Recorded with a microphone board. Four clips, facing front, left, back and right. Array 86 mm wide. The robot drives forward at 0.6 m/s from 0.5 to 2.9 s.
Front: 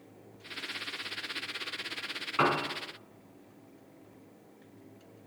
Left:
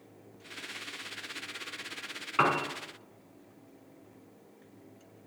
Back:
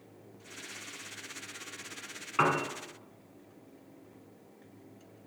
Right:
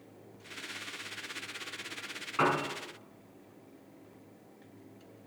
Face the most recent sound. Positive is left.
turn(degrees=130)